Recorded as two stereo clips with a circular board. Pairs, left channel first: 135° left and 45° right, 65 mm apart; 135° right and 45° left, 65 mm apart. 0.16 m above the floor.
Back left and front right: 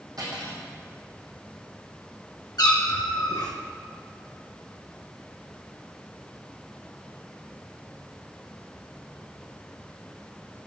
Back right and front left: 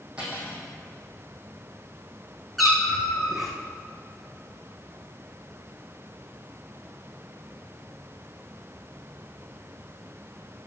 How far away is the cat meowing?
About 2 m.